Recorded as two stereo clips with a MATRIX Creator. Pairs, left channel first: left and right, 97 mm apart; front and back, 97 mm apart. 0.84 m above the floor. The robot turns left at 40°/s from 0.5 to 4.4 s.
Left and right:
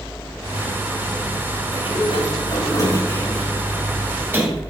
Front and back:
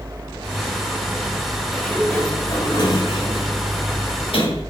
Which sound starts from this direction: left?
A sliding door, at 1.7 s.